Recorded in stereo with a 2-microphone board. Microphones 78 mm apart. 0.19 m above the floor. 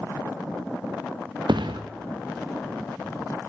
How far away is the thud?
About 2.5 m.